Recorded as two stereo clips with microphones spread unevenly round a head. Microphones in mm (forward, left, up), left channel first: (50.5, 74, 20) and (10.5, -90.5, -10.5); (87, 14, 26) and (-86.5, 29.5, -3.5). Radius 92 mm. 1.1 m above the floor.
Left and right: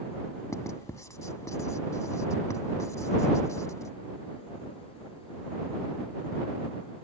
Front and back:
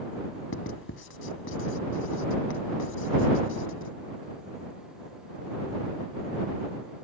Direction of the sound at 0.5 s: 5° left.